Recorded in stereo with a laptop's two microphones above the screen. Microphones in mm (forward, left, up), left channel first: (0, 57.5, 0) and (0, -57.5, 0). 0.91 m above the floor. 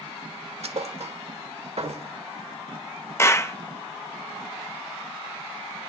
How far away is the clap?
About 0.6 m.